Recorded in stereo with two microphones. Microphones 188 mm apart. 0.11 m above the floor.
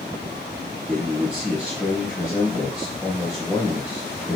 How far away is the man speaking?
About 3 m.